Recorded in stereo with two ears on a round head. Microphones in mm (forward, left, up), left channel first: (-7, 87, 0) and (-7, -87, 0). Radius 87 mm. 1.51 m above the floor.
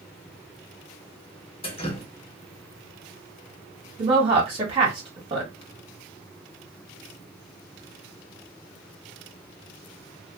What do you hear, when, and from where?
1.6 s dripping: 30° left (ahead or behind), 0.9 m
4.0 s a woman speaking: 30° right (ahead or behind), 1.1 m